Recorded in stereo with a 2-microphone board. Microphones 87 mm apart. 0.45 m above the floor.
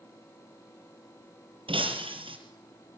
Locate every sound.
1.7 s breaking glass: 85° right, 5 m